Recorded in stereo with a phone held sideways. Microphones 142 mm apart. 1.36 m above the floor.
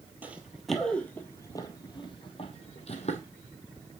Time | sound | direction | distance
0.2 | running footsteps | 10° right (ahead or behind) | 1.5 m